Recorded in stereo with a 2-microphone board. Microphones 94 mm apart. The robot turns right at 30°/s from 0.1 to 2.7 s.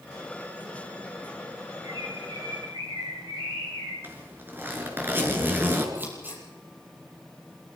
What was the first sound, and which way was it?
A bird, 45° right (ahead or behind).